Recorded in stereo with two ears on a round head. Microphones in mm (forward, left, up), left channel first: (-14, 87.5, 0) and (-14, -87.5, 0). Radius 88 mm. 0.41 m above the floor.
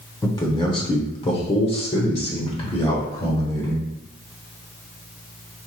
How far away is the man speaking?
About 1.0 m.